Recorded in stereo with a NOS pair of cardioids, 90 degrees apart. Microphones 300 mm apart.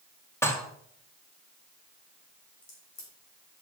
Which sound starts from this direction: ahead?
Dishes clattering, at 0.4 s.